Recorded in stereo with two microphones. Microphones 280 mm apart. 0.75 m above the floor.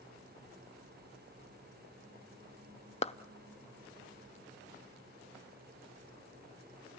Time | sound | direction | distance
3.0 | a clap | 25° left (ahead or behind) | 0.5 m